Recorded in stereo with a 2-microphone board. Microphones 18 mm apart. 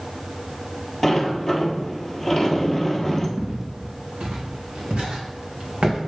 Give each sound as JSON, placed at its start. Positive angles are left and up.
{"t": 1.0, "sound": "a sliding door", "side_deg": 5, "distance_m": 1.3}
{"t": 3.4, "sound": "footsteps", "side_deg": -80, "distance_m": 3.0}